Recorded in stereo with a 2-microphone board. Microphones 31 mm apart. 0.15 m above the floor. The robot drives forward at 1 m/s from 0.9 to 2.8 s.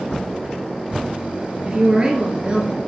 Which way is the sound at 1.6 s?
25° right (ahead or behind).